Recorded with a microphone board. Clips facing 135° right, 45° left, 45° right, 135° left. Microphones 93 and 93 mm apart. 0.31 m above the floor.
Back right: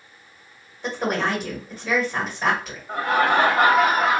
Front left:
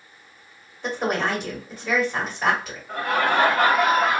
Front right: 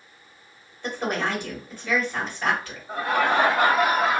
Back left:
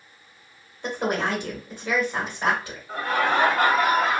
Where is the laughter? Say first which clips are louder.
Back right 2 dB, front right 1 dB; 90° right, 1.4 m.